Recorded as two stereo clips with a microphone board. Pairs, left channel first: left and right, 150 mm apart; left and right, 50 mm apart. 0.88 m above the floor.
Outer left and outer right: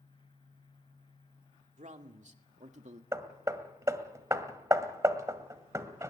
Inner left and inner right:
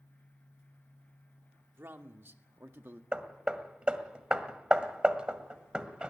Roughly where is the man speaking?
Right.